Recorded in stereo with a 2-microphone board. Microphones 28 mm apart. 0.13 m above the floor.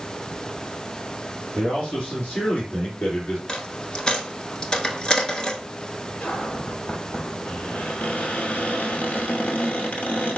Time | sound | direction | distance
1.6 | a man speaking | 45° left (ahead or behind) | 2.5 m
3.5 | a dropped coin | 25° left (ahead or behind) | 0.7 m
6.2 | a cupboard door | 65° left (ahead or behind) | 1.1 m